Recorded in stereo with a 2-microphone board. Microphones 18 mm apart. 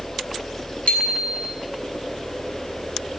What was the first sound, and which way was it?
A bicycle bell, 80° left.